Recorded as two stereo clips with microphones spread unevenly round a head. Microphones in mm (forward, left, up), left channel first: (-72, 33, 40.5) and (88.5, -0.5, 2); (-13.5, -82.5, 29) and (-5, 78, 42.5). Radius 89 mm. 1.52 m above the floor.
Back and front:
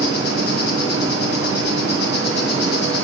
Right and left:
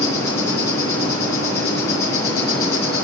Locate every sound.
0.0 s an insect: 165° right, 5 m